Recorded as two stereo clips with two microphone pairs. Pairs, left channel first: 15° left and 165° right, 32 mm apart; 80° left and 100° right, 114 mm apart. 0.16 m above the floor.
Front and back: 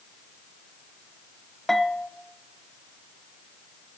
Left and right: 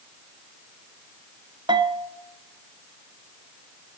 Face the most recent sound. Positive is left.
turn(degrees=-65)